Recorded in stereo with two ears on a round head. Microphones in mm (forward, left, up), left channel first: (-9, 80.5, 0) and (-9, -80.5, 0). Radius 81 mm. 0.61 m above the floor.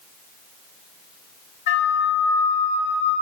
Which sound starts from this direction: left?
A flute, at 1.7 s.